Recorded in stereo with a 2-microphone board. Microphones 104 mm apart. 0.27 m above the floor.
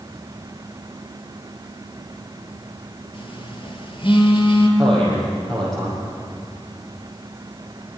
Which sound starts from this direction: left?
A phone buzzing, at 3.1 s.